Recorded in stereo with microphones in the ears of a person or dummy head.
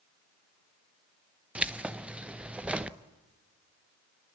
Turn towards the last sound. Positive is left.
turn(degrees=-5)  # may be behind; listen again after turning